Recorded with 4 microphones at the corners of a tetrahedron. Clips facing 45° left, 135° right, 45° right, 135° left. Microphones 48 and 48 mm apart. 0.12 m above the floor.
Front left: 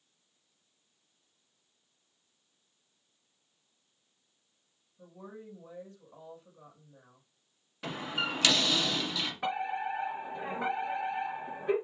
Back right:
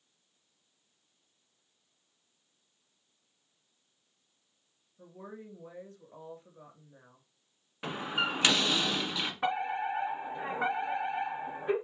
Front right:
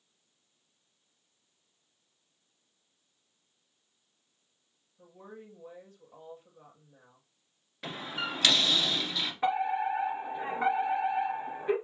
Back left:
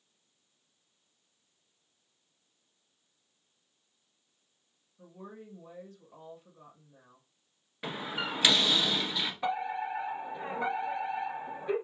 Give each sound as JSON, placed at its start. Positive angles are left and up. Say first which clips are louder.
{"t": 5.0, "sound": "a woman speaking", "louder": "back right 1 dB, back left 1 dB", "azimuth_deg": -130, "distance_m": 2.0}
{"t": 7.8, "sound": "a door slam", "louder": "back right 2 dB, back left 1 dB", "azimuth_deg": -165, "distance_m": 1.1}
{"t": 9.4, "sound": "a fire alarm", "louder": "back right 2 dB, front right 6 dB", "azimuth_deg": -90, "distance_m": 2.5}